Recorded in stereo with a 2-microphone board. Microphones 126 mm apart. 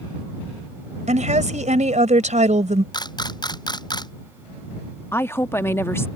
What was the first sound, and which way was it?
A woman speaking, 70° right (ahead or behind).